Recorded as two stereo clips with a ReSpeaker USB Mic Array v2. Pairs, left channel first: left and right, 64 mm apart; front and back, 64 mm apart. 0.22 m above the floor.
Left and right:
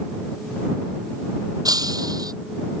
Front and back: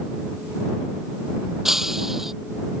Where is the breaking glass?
95° right.